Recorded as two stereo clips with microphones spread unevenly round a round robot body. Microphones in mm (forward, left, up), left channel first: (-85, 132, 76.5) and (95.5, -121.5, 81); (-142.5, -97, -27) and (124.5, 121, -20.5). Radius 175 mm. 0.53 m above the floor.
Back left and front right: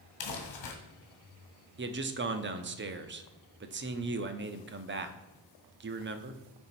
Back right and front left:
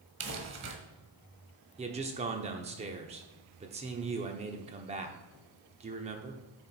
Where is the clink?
No clink in this recording.